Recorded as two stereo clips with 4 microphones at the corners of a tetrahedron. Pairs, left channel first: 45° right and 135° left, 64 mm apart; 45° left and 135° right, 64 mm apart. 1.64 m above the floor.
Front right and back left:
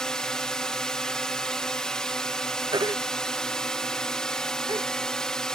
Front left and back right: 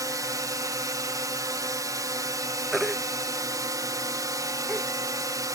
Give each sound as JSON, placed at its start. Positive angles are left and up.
{"t": 0.0, "sound": "a drone", "azimuth_deg": -125}
{"t": 2.7, "sound": "a baby crying", "azimuth_deg": 140}